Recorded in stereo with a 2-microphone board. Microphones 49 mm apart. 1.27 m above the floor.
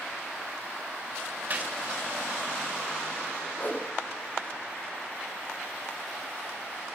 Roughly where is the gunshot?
Right.